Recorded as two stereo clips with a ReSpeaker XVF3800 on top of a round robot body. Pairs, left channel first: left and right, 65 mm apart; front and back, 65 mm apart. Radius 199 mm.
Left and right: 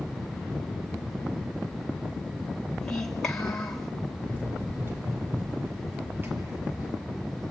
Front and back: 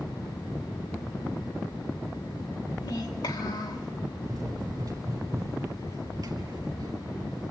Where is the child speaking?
10° left, 2.5 m.